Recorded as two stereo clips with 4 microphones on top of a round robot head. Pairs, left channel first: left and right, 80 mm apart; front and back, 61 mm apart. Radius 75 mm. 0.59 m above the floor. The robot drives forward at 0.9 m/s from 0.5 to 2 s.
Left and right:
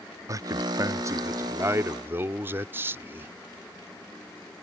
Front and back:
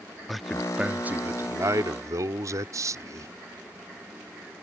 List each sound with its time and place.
0.3 s a man speaking: 90° right; by 3.3 s 150° right